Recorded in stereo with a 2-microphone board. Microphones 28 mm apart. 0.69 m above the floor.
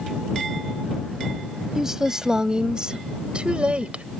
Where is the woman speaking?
15° right (ahead or behind); by 4.0 s 45° right (ahead or behind).